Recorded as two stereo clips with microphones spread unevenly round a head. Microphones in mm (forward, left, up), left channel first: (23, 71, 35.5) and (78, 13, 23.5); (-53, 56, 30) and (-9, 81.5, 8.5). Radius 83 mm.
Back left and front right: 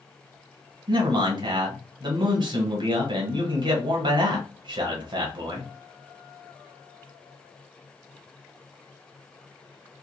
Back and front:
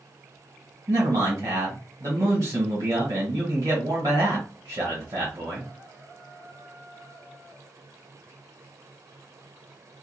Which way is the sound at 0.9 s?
20° right.